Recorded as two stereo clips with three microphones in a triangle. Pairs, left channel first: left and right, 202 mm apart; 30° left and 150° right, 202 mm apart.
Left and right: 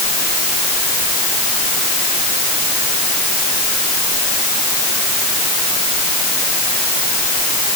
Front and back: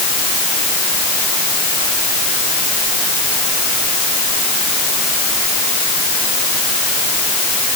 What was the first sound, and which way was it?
Only background noise.